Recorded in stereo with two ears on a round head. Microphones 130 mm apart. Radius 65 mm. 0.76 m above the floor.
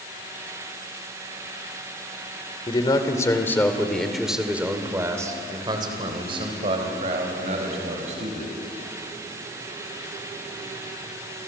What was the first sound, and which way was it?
A man speaking, 30° left (ahead or behind).